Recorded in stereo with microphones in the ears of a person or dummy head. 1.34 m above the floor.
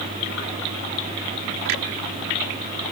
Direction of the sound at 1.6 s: 65° right (ahead or behind).